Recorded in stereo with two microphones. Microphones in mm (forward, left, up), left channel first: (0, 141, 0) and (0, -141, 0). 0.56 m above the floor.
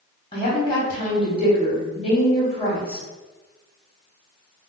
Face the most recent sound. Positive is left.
turn(degrees=20)  # may be behind; listen again after turning